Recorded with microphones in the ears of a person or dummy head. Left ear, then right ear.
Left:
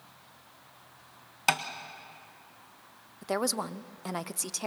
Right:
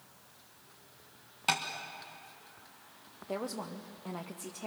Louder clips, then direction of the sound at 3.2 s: Left 7 dB; 70° left (ahead or behind).